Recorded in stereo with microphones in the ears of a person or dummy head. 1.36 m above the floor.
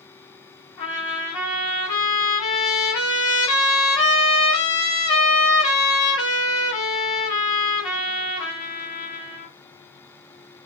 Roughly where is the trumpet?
Left.